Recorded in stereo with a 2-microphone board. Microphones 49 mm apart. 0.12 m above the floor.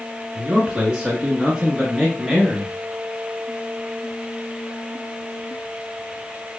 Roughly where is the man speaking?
Centre.